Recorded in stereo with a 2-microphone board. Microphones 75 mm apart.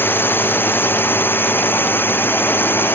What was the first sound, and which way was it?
A drone, 25° left (ahead or behind).